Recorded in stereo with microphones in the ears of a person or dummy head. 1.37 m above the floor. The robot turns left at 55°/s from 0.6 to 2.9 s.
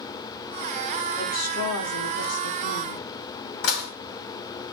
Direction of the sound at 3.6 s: 70° left (ahead or behind).